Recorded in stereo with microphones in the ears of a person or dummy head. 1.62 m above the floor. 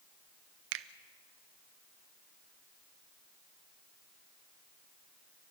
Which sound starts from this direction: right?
A finger snap, at 0.7 s.